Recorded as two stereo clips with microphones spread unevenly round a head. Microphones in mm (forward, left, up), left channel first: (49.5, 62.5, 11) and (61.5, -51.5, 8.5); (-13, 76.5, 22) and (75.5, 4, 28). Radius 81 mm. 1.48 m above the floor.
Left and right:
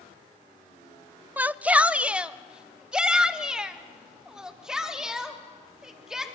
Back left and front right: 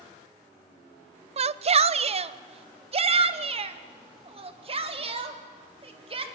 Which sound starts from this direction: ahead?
A shout, at 1.4 s.